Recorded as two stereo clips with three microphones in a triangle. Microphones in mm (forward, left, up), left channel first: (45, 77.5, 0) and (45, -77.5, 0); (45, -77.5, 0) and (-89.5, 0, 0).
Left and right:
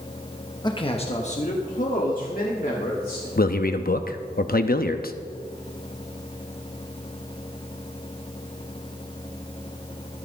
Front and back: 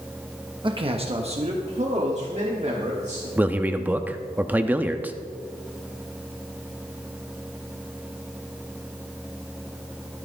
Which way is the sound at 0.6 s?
130° left.